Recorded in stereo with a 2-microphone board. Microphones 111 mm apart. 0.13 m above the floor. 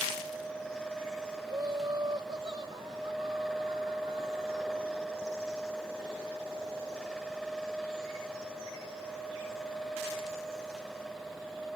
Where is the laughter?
35° right (ahead or behind); by 4.9 s 45° right (ahead or behind).